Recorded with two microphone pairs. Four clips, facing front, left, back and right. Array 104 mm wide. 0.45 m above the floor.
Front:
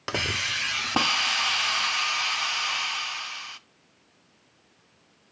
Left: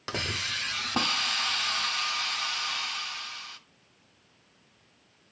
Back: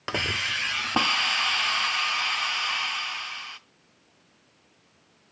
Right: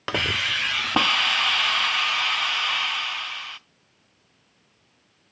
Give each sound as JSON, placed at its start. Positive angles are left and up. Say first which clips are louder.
{"t": 0.1, "sound": "a hiss", "louder": "right 7 dB, even", "azimuth_deg": -90, "distance_m": 0.5}